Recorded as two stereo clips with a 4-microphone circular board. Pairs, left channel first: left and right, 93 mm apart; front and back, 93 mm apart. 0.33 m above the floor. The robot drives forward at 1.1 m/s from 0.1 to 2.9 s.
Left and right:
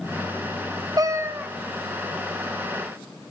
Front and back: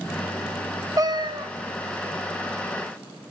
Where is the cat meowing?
130° right, 0.6 m; by 1.5 s 155° right, 1.1 m.